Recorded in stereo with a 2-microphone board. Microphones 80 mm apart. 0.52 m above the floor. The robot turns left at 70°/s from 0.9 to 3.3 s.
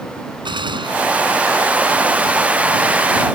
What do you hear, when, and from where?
0.5 s a gunshot: 80° right; by 1.9 s 20° right (ahead or behind)